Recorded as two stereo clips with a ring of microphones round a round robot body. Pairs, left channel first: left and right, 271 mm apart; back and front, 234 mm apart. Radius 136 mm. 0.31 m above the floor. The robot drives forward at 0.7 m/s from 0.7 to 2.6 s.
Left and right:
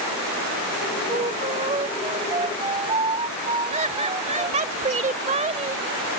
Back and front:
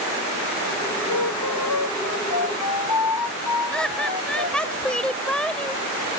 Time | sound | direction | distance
1.1 | a flute | 160° right | ?
3.7 | laughter | 100° right | ?